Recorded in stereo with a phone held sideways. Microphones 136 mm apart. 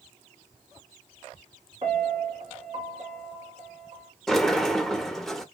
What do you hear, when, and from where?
1.8 s a piano: 45° right (ahead or behind), 1.4 m
4.3 s a sliding door: 5° left (ahead or behind), 0.5 m